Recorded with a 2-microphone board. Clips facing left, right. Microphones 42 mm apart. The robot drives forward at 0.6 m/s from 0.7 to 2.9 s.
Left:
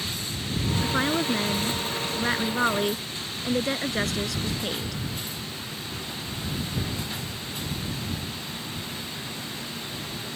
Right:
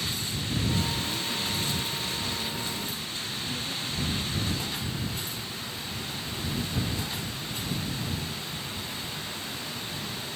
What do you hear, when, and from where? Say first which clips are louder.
0.8 s a woman speaking: left 7 dB; 80° left; by 5.0 s 85° left